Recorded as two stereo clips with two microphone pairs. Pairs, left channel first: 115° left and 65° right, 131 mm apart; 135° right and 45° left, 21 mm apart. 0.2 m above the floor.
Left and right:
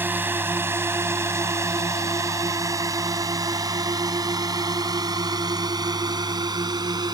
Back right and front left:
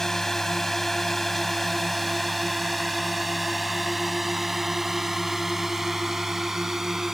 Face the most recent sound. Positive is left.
turn(degrees=-20)